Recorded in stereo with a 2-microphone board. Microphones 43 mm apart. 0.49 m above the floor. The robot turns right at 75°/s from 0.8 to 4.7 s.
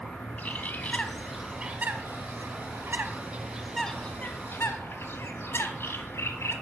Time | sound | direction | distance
0.4 | a bird | 40° left (ahead or behind) | 1.3 m